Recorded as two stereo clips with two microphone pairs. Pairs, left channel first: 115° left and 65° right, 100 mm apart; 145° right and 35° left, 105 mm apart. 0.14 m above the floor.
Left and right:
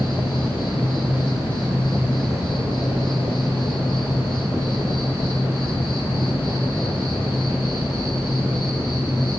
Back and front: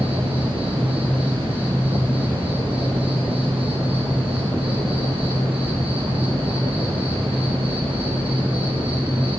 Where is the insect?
Straight ahead, 4 m.